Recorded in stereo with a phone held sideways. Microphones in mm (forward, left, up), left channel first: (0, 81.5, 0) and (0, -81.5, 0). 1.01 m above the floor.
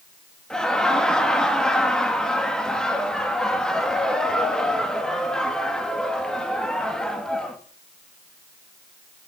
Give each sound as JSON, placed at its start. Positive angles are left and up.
{"t": 0.5, "sound": "laughter", "side_deg": 5, "distance_m": 1.7}